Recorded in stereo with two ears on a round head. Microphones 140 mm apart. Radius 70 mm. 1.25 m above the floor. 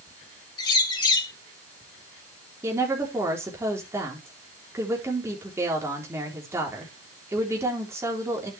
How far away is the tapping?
No tapping in this recording.